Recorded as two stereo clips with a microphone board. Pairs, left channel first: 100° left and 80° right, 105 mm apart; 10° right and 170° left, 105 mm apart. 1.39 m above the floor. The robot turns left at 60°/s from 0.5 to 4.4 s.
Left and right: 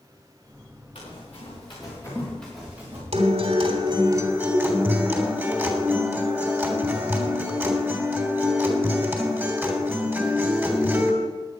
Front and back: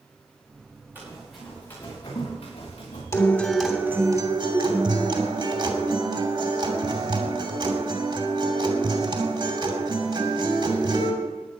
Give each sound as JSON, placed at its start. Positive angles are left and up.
{"t": 0.9, "sound": "running footsteps", "azimuth_deg": 100, "distance_m": 8.0}
{"t": 3.1, "sound": "a guitar", "azimuth_deg": -70, "distance_m": 3.0}